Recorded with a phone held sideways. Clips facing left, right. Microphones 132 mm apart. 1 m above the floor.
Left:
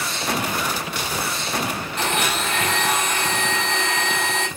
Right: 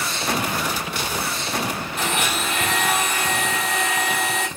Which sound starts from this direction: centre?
A blender, at 2.0 s.